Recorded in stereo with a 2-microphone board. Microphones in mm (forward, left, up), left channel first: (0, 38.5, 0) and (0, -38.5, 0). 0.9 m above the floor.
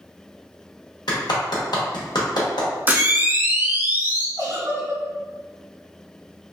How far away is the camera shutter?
About 0.8 m.